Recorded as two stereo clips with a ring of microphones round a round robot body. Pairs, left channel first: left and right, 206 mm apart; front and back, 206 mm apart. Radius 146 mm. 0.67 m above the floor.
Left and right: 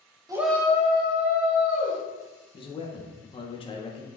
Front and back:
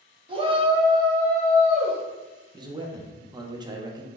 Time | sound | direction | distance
0.3 | a shout | 145° right | 0.7 m
2.5 | a man speaking | 130° left | 0.6 m